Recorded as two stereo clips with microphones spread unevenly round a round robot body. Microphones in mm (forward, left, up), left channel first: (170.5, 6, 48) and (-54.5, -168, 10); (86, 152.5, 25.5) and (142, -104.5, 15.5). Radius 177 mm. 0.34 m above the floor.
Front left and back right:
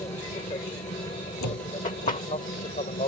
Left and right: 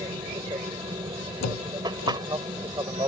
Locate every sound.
0.0 s an aircraft: 20° right; by 3.1 s 10° right
1.4 s a door slam: 80° left